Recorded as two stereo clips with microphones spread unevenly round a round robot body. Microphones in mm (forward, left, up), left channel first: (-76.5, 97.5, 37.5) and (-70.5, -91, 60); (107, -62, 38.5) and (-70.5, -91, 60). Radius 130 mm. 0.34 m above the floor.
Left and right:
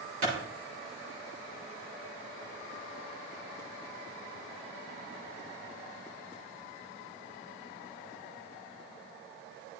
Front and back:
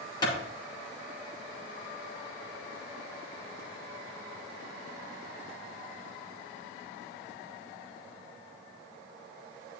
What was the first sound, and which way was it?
A clap, 55° right.